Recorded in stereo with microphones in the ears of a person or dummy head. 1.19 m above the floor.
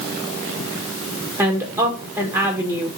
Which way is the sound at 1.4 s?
15° right (ahead or behind).